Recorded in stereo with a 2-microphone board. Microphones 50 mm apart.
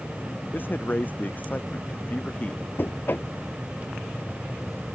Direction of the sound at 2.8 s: 40° left (ahead or behind).